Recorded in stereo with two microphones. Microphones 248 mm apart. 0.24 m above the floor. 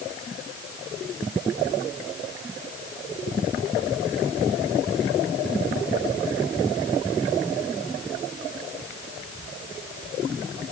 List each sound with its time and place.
Only background noise.